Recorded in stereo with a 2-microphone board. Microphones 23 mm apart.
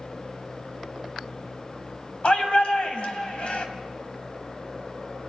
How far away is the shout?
About 3 m.